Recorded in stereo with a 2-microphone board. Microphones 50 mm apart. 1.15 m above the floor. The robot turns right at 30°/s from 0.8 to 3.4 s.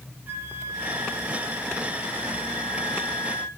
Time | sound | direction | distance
0.3 | a flute | 65° right | 1.0 m